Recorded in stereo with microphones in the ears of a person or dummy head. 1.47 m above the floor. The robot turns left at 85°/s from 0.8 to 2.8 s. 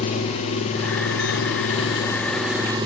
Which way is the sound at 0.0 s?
135° left.